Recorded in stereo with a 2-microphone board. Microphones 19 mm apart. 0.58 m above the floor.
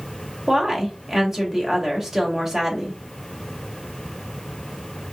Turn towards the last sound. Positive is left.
turn(degrees=-25)  # may be behind; listen again after turning